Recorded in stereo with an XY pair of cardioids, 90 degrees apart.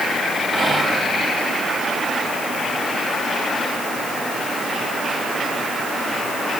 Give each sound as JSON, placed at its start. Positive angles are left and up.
{"t": 0.5, "sound": "whispering", "azimuth_deg": -45, "distance_m": 2.0}